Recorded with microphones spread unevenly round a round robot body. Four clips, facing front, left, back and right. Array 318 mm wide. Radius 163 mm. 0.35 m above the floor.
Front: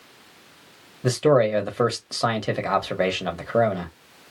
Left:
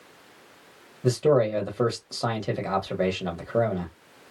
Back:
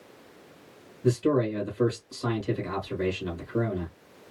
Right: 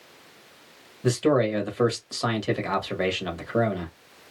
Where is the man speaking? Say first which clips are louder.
Left 1 dB, front 6 dB; 5° left, 1.4 m.